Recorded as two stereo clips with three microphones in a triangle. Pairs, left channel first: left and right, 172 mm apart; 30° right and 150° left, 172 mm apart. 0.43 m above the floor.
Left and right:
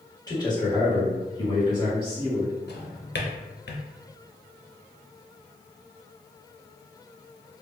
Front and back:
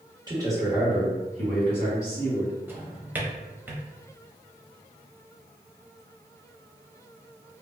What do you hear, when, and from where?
0.3 s a man speaking: 130° left, 1.1 m; by 2.5 s 30° left, 1.7 m
2.7 s a drawer: 70° left, 0.5 m